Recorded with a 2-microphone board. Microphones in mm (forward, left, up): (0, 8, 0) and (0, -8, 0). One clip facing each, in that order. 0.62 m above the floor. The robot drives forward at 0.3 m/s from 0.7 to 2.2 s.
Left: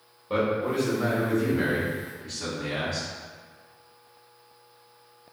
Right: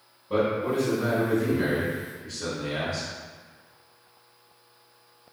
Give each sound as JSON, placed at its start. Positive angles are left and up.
{"t": 0.3, "sound": "a man speaking", "side_deg": 55, "distance_m": 1.3}